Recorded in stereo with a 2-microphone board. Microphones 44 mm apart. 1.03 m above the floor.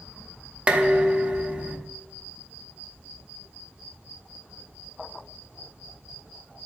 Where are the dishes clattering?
25° right (ahead or behind), 0.7 m.